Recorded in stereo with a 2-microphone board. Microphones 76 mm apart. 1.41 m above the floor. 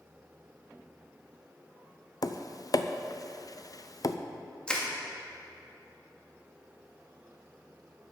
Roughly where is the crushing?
Centre.